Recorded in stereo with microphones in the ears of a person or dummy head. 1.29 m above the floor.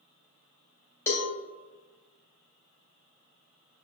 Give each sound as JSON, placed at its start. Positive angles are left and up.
{"t": 1.1, "sound": "a cowbell", "side_deg": 15, "distance_m": 0.7}